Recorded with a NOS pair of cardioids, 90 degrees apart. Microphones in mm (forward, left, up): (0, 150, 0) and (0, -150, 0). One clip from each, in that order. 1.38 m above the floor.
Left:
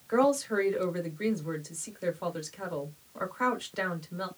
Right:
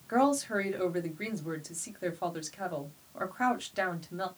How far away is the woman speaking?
About 1.2 m.